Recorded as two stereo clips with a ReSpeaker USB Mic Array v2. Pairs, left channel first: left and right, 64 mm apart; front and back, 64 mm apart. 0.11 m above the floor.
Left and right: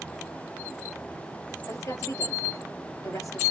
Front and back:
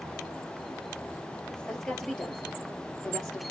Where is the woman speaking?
80° left, 2 m.